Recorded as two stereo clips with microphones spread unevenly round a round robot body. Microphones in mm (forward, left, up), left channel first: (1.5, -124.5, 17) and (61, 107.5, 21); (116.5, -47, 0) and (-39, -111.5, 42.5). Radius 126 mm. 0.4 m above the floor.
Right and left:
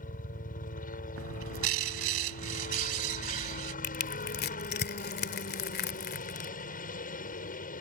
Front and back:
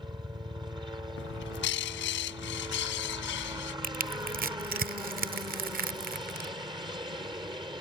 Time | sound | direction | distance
0.0 | a helicopter | 95° right | ?
1.2 | a bird | 40° left | ?
3.8 | crushing | 130° right | ?